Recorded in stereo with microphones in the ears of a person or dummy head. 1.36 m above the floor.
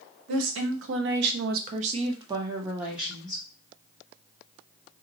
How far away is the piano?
No piano in this recording.